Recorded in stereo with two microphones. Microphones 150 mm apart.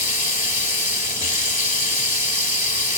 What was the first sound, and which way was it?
Running water, 60° left (ahead or behind).